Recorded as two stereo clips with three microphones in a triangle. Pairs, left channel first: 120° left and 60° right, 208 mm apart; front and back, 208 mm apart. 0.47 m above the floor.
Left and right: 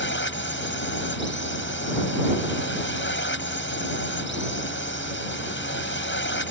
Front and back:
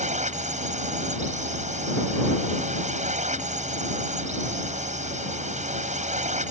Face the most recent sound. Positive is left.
turn(degrees=130)